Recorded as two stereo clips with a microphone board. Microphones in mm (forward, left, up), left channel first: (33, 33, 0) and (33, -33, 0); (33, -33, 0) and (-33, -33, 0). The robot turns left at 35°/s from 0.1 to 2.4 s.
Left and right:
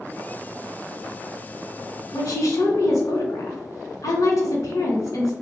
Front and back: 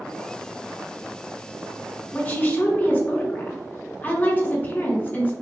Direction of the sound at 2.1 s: 70° left.